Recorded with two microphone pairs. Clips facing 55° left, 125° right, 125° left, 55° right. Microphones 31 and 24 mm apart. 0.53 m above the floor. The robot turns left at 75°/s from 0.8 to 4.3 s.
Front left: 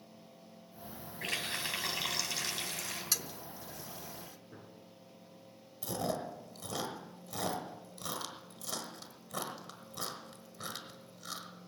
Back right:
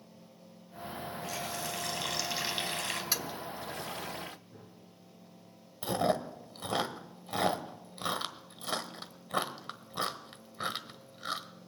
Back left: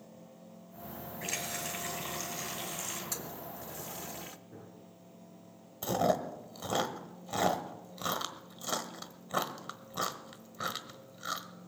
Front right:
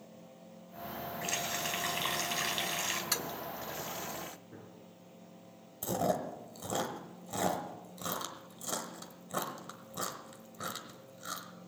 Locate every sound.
1.2 s a running tap: 35° left, 2.5 m; by 3.0 s 100° right, 2.5 m
3.1 s a toilet flushing: 60° right, 0.6 m; by 4.4 s 150° right, 0.6 m
4.5 s a gunshot: 20° left, 8 m
5.8 s chewing: 170° right, 1.3 m